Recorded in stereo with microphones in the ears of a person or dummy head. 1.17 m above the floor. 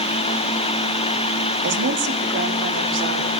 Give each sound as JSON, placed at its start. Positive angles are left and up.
{"t": 1.6, "sound": "a woman speaking", "side_deg": -60, "distance_m": 2.5}